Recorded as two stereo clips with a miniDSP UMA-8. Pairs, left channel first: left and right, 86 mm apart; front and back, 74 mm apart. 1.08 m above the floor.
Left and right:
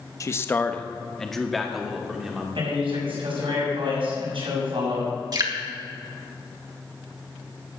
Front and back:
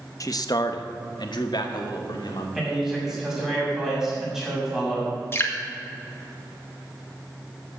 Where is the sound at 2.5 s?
95° right, 6.5 m.